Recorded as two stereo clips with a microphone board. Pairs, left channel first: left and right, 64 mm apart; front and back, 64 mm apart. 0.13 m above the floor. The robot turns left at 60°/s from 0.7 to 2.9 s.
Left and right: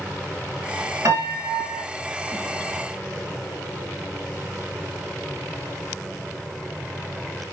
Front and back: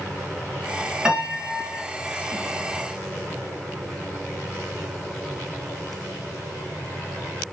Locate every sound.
1.1 s a piano: 105° right, 0.8 m; by 1.8 s 150° right, 0.8 m